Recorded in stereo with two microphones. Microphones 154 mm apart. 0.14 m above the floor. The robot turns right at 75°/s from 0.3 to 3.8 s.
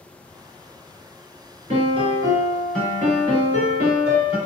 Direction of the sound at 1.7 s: 75° right.